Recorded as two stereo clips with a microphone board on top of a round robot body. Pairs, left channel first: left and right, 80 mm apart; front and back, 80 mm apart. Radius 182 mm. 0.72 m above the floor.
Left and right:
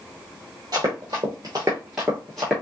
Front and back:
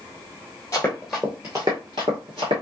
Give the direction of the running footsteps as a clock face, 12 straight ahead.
2 o'clock.